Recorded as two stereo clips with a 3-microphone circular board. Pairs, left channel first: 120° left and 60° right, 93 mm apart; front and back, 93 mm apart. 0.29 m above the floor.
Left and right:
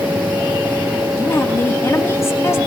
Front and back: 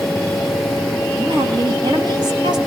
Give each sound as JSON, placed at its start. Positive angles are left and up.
{"t": 1.2, "sound": "a woman speaking", "azimuth_deg": 170, "distance_m": 2.0}